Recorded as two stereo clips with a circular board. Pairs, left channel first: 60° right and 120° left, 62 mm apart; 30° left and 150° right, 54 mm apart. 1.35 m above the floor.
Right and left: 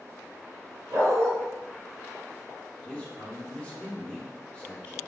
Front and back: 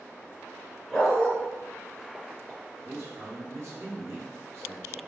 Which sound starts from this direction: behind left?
A dog barking, at 0.9 s.